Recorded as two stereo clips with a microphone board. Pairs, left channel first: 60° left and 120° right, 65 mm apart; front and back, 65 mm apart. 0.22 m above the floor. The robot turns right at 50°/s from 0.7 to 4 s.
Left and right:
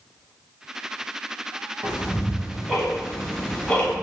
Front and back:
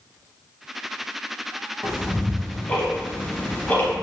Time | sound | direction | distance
1.8 | ticking | 85° right | 0.8 m